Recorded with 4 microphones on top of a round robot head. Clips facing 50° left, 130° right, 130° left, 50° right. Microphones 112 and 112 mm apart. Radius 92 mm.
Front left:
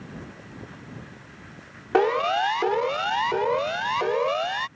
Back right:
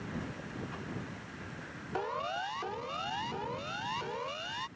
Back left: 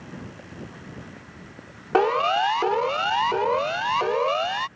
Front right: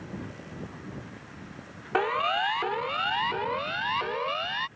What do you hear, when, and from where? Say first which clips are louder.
1.9 s a siren: front left 15 dB, back left 7 dB; 70° left; by 4.7 s 75° left